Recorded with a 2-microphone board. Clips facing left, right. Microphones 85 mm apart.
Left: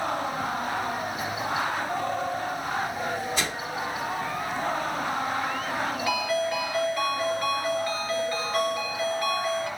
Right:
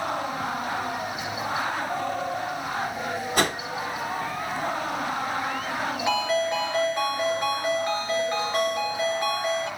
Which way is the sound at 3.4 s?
55° right (ahead or behind).